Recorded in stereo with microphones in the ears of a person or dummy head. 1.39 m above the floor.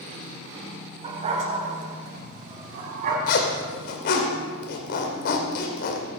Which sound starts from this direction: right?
A dog barking, at 1.0 s.